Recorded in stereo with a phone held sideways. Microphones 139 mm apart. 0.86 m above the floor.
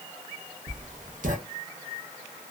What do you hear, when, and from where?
0.7 s writing: 65° right (ahead or behind), 0.8 m